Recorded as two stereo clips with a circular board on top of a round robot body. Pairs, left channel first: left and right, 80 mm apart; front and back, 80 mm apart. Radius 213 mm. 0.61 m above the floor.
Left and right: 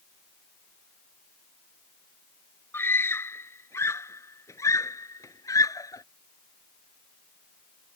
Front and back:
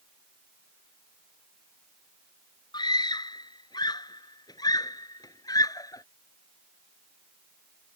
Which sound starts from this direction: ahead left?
A scream, at 2.7 s.